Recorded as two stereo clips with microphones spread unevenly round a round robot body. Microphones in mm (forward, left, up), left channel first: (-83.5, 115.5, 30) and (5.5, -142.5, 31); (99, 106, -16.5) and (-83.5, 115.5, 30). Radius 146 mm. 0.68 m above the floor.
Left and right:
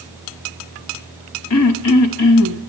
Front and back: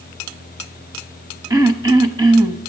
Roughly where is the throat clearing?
Behind left.